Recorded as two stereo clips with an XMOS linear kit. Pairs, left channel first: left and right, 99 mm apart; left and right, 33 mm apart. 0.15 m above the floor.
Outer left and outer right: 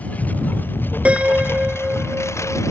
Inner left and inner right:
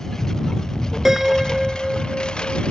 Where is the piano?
15° right (ahead or behind).